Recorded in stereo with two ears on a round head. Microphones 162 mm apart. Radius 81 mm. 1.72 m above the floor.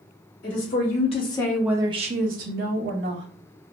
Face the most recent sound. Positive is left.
turn(degrees=-70)  # may be behind; listen again after turning